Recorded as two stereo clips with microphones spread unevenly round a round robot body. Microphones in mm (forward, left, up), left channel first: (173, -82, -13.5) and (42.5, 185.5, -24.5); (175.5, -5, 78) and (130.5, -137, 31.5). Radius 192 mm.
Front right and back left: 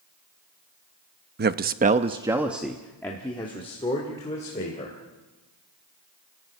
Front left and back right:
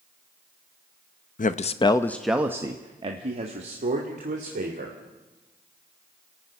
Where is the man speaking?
80° left, 0.9 m; by 5.0 s 140° right, 3 m.